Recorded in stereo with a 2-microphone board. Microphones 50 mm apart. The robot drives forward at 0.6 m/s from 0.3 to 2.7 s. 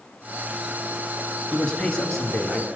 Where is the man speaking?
15° left (ahead or behind), 1.3 m; by 2.7 s 10° left (ahead or behind), 1.8 m.